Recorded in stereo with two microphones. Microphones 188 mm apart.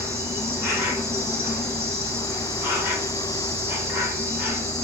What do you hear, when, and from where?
0.0 s an insect: 15° right (ahead or behind), 0.9 m